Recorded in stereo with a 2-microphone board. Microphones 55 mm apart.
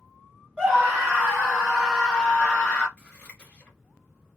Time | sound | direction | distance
0.6 | a scream | 15° right (ahead or behind) | 1.7 m
3.0 | scissors | 20° left (ahead or behind) | 1.6 m